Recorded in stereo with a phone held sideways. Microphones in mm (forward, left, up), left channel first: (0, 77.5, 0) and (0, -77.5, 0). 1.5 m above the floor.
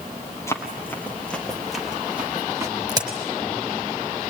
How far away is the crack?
About 5 m.